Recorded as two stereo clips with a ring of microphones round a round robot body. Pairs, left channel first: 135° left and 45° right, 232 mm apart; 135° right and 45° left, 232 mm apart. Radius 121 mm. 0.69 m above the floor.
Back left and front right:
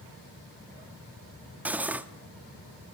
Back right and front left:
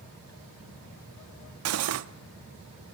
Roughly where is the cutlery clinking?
Ahead left.